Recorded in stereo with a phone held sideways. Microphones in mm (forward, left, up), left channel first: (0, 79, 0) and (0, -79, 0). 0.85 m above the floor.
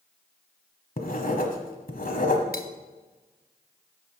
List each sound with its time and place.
1.0 s writing: 65° left (ahead or behind), 1.3 m
2.5 s cutlery clinking: 75° left (ahead or behind), 0.8 m